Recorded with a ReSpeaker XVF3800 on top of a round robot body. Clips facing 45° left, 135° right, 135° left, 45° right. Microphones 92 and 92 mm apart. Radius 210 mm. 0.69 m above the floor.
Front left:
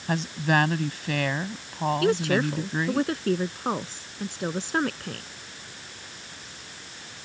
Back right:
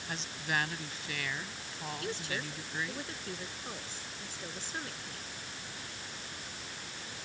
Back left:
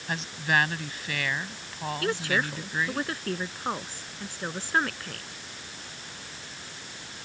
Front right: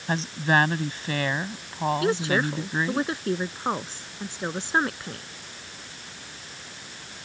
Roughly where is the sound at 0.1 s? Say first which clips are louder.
Front left 12 dB, front right 4 dB; ahead.